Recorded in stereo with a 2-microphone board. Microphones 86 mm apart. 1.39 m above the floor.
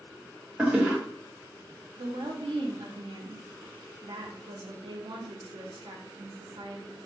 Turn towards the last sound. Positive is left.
turn(degrees=-70)  # may be behind; listen again after turning